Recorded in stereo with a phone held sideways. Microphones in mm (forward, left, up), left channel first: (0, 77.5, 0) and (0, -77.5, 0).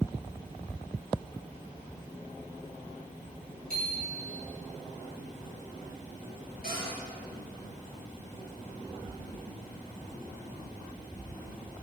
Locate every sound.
3.7 s a bicycle bell: 70° right (ahead or behind), 6.5 m
6.6 s a cupboard door: 85° right, 6.5 m